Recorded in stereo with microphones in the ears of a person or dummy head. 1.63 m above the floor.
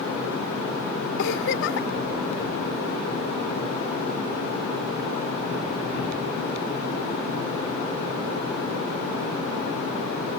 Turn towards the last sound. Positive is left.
turn(degrees=65)  # may be behind; listen again after turning